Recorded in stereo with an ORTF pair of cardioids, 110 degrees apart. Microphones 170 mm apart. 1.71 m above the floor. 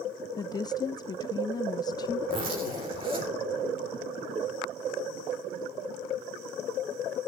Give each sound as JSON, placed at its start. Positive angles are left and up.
{"t": 0.4, "sound": "a woman speaking", "azimuth_deg": 25, "distance_m": 0.5}
{"t": 2.3, "sound": "a zipper", "azimuth_deg": -35, "distance_m": 3.5}